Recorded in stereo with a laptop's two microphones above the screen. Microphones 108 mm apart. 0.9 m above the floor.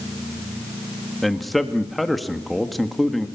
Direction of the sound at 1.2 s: Centre (ahead or behind).